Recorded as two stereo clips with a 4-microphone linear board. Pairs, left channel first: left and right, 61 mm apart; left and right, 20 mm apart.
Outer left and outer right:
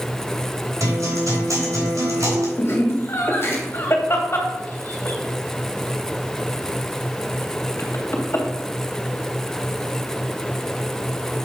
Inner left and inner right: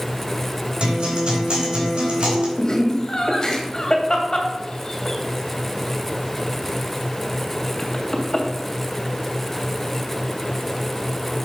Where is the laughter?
40° left (ahead or behind), 2.5 m.